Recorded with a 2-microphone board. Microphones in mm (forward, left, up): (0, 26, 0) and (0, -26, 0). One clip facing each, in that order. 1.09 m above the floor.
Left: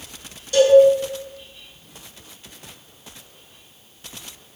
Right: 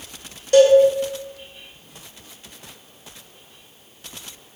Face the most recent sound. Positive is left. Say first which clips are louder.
# right 2 dB
turn(degrees=-50)  # may be behind; listen again after turning